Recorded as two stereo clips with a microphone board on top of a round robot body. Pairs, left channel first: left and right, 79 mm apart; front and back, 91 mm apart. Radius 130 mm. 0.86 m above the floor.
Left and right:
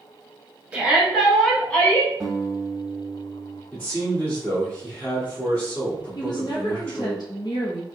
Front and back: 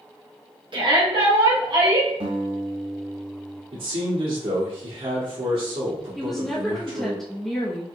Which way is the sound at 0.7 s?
165° right.